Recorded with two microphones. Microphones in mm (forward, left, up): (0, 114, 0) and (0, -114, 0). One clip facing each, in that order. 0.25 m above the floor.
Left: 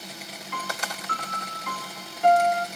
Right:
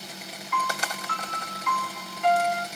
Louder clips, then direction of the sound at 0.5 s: Right 3 dB; 45° left (ahead or behind).